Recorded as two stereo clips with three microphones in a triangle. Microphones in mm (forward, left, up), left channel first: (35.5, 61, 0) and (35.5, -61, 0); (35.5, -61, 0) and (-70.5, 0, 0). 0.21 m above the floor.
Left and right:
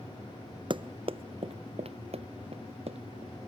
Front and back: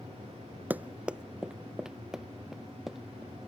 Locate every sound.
0.7 s running footsteps: 135° right; by 3.5 s 120° right